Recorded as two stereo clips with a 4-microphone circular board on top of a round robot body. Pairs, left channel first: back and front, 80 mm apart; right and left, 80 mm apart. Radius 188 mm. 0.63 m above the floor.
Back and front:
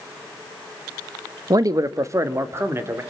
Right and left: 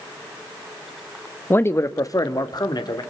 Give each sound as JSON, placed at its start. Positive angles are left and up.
{"t": 1.5, "sound": "a man speaking", "azimuth_deg": -30, "distance_m": 1.3}